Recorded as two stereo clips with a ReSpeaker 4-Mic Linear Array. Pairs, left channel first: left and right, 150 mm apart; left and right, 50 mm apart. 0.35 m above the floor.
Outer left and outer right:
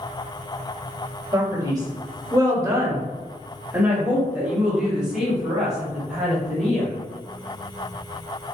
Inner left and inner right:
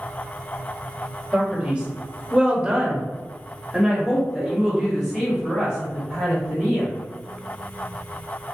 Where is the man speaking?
25° right (ahead or behind), 1.4 m; by 6.9 s centre (ahead or behind), 3 m.